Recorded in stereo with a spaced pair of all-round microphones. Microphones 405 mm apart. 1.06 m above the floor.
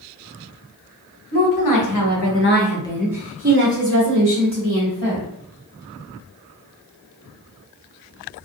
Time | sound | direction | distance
1.3 | a woman speaking | 55° left (ahead or behind) | 1.1 m